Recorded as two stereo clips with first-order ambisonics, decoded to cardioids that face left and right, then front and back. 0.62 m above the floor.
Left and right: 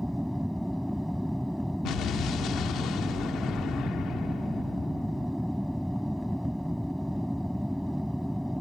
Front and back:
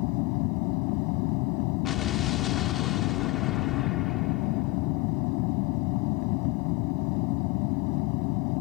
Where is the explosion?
50° left.